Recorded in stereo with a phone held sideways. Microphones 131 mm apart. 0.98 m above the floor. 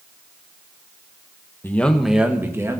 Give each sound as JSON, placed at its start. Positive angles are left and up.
{"t": 1.6, "sound": "a man speaking", "side_deg": 20, "distance_m": 1.0}